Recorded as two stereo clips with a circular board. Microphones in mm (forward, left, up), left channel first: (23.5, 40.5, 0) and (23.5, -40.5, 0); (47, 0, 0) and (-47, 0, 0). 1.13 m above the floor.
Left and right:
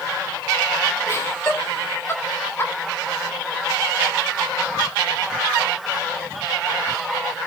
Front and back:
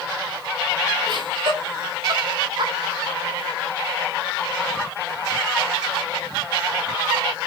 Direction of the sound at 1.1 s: 145° left.